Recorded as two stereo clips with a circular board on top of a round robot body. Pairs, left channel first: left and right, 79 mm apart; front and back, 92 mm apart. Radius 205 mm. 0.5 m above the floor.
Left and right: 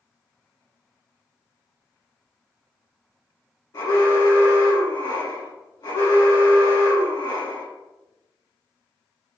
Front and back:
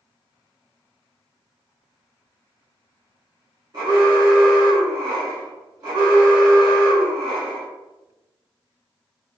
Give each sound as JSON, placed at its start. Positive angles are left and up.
{"t": 3.7, "sound": "an alarm", "azimuth_deg": 130, "distance_m": 1.7}